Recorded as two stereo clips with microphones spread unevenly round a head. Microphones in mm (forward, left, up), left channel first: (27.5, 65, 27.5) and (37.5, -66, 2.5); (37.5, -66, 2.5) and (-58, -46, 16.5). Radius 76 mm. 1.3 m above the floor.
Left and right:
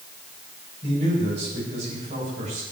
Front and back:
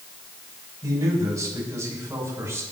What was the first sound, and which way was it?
A man speaking, 135° right.